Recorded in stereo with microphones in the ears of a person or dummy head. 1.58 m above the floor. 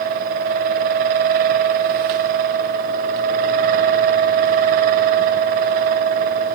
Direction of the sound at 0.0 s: 45° right (ahead or behind).